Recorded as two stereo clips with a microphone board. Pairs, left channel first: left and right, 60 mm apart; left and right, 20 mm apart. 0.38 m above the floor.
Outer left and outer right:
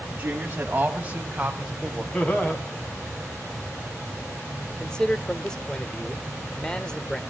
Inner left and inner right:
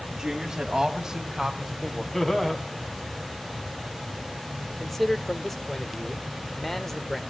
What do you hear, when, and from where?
0.1 s a woman speaking: 30° right (ahead or behind), 2.5 m; by 2.0 s 15° right (ahead or behind), 2.0 m
2.1 s laughter: 30° left (ahead or behind), 2.5 m
4.8 s a man speaking: 15° left (ahead or behind), 1.0 m